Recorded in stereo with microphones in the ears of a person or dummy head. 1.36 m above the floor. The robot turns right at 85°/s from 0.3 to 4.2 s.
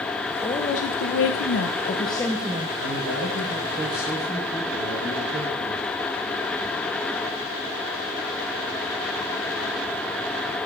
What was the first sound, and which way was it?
A woman speaking, 15° left.